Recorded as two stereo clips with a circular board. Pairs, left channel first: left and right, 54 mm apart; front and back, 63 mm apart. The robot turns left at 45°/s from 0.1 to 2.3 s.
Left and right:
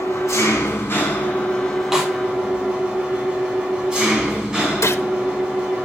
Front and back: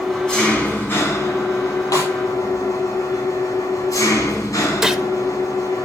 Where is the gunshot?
100° left, 0.9 m.